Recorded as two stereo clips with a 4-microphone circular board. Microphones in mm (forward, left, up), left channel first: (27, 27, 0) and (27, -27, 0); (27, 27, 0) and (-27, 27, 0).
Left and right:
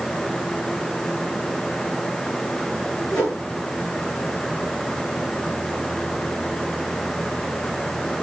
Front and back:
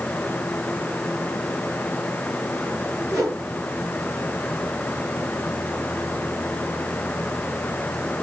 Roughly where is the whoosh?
Behind.